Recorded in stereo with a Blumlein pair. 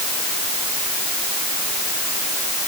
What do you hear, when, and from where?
Only background noise.